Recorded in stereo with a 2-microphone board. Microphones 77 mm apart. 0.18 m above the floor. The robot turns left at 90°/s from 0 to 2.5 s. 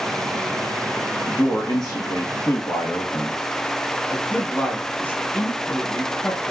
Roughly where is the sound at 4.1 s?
Left.